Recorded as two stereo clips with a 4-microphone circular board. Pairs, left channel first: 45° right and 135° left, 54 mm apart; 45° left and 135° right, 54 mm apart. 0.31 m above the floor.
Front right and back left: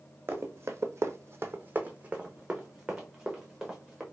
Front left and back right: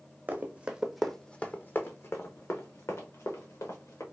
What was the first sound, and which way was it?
Running footsteps, 170° left.